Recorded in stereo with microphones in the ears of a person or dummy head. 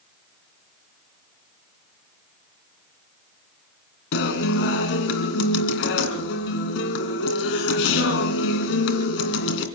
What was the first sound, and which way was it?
A guitar, 65° left (ahead or behind).